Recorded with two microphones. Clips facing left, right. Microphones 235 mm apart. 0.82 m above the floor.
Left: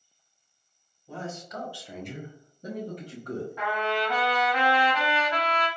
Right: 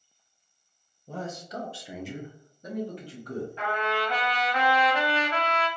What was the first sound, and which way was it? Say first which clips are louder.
A man speaking: right 1 dB; 45° right (ahead or behind).